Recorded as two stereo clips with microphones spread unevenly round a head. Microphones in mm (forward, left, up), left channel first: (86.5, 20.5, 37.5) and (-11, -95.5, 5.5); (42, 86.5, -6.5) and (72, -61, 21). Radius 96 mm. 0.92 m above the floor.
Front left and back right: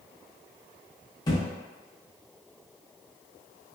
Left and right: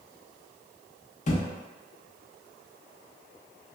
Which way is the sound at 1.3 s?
80° left.